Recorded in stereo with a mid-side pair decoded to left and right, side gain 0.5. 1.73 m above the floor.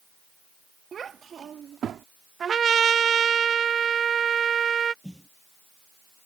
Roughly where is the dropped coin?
No dropped coin in this recording.